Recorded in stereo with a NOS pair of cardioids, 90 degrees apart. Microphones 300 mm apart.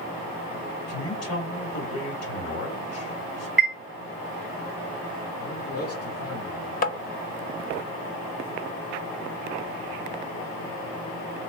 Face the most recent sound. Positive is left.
turn(degrees=30)